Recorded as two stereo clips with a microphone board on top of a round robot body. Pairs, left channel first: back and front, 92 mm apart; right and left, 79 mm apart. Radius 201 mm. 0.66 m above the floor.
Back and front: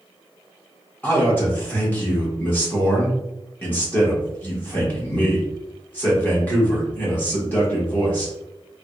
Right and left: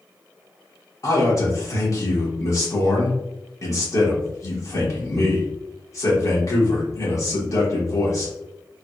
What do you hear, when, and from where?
1.0 s a man speaking: 115° right, 1.4 m